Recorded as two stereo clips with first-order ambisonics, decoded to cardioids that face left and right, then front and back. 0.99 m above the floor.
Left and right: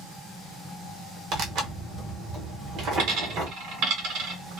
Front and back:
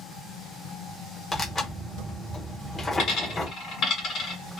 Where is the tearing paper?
65° right, 0.8 m.